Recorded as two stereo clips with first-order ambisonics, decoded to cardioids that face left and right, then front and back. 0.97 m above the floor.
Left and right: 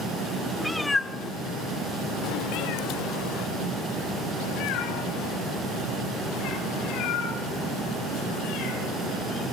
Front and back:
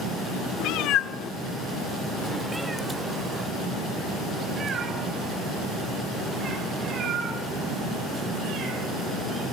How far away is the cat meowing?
About 0.9 m.